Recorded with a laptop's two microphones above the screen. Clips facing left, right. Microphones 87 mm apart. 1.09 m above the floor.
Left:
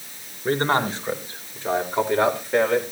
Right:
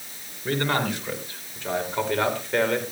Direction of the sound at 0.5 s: 30° left (ahead or behind).